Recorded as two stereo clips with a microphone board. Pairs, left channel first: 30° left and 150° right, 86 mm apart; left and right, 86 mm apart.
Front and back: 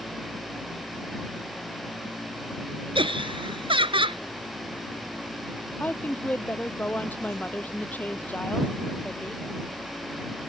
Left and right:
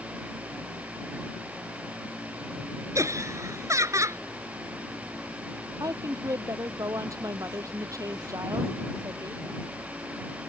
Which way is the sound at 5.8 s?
40° right.